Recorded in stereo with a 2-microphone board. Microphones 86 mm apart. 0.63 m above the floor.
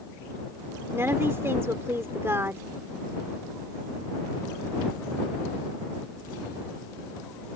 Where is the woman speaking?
30° right (ahead or behind).